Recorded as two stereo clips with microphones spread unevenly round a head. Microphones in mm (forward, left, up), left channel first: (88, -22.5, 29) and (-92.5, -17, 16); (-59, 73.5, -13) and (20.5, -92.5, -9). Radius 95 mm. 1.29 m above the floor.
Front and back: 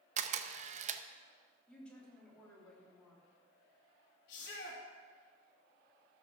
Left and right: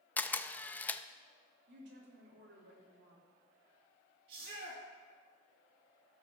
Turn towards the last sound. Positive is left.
turn(degrees=-35)